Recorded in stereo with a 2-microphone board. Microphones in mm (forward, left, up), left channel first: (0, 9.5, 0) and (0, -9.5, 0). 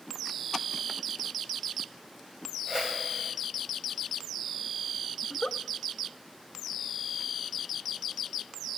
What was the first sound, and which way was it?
A whoosh, 20° right (ahead or behind).